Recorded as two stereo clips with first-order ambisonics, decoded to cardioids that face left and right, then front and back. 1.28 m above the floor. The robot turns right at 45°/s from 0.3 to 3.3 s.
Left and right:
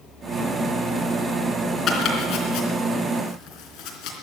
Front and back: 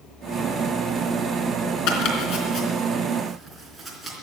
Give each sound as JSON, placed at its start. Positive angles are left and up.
{"t": 1.9, "sound": "chopping", "azimuth_deg": 25, "distance_m": 3.0}